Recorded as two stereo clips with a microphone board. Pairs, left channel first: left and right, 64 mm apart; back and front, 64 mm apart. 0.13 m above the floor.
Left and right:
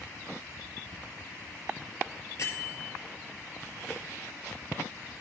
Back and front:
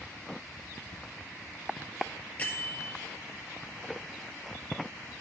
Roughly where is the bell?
Behind left.